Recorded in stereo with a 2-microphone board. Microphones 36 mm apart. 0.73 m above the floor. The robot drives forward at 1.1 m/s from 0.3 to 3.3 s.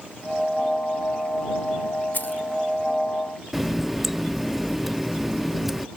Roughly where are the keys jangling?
Left.